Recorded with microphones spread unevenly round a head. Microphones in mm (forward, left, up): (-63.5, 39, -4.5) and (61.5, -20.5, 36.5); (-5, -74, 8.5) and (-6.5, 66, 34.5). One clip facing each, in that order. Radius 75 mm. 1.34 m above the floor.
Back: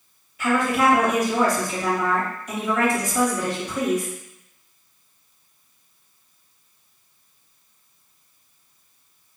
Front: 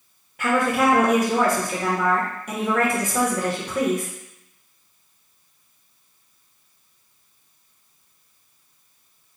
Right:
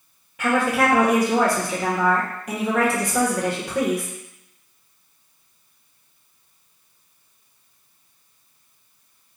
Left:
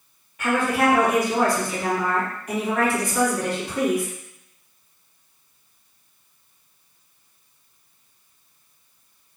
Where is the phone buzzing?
No phone buzzing in this recording.